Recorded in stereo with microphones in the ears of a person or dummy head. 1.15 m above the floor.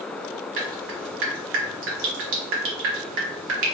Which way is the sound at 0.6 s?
70° right (ahead or behind).